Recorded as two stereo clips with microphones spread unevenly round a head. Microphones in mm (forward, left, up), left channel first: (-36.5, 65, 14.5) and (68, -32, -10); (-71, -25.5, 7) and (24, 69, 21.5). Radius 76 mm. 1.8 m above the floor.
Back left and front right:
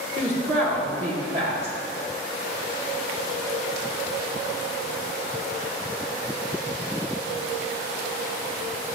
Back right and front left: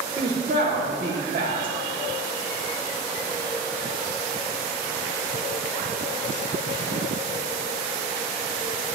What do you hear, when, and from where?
0.2 s a woman speaking: 5° left, 1.6 m